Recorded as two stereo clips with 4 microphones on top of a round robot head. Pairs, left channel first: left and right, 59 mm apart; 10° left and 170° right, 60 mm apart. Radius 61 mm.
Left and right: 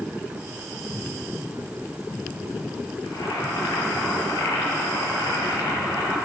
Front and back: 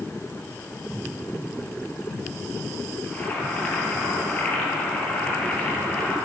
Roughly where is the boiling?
Left.